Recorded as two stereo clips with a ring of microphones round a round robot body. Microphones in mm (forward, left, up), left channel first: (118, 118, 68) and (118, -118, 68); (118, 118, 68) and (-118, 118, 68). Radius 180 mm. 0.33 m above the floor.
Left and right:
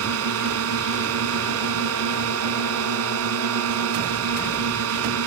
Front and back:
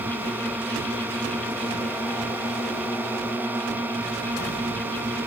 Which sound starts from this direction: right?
A drone, at 0.0 s.